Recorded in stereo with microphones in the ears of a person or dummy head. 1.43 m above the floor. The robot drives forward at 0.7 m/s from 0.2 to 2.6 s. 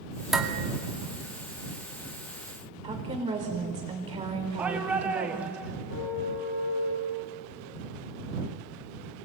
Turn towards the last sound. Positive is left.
turn(degrees=65)  # may be behind; listen again after turning